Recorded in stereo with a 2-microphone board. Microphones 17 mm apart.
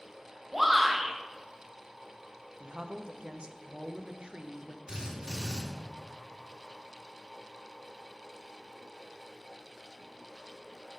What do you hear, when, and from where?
0.5 s a shout: 15° right (ahead or behind), 1.7 m
2.6 s a woman speaking: 70° right (ahead or behind), 0.7 m
4.9 s a drill: 70° right (ahead or behind), 3 m